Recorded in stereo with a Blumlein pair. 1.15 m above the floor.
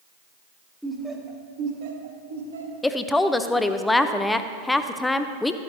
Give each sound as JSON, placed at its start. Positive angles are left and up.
{"t": 0.8, "sound": "laughter", "azimuth_deg": 0, "distance_m": 1.3}
{"t": 2.8, "sound": "a woman speaking", "azimuth_deg": 10, "distance_m": 0.5}